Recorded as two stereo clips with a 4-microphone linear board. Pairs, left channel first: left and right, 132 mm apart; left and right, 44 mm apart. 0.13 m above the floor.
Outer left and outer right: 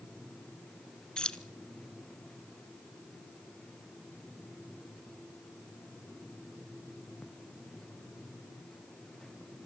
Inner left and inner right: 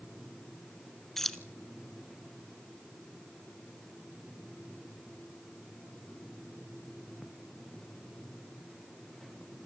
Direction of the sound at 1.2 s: 5° left (ahead or behind).